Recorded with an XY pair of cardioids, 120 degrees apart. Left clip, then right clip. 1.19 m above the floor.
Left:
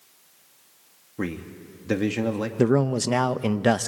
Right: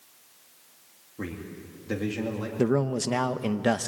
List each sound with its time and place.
1.2 s a man speaking: 45° left, 2.5 m
2.6 s a man speaking: 25° left, 0.7 m